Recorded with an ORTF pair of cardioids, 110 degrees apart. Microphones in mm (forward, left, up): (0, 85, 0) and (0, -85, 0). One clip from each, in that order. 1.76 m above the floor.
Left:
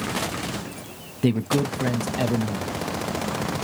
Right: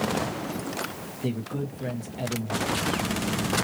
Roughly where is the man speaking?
Ahead left.